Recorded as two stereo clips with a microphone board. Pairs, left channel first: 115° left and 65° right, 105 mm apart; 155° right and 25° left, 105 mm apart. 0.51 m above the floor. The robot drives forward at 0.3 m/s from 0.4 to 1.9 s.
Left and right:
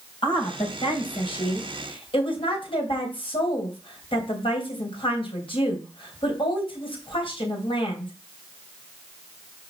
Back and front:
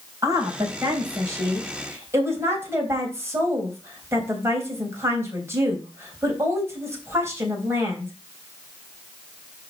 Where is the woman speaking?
80° left, 3.5 m; by 8.1 s 85° left, 3.5 m.